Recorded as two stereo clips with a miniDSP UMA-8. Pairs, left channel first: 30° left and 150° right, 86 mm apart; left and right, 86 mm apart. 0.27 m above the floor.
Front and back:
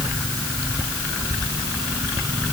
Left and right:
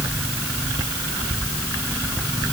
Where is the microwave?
I don't hear a microwave.